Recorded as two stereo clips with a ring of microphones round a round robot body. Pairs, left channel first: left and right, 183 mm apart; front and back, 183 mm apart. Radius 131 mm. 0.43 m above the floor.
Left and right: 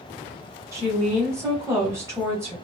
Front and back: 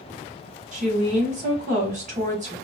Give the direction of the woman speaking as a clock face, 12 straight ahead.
5 o'clock.